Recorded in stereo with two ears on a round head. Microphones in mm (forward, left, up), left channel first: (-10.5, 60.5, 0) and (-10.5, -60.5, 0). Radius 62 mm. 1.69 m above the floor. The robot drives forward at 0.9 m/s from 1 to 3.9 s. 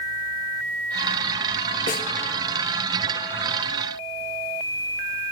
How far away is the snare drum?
About 1.1 m.